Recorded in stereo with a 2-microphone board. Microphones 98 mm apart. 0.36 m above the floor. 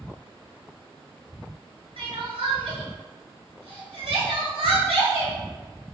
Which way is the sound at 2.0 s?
85° right.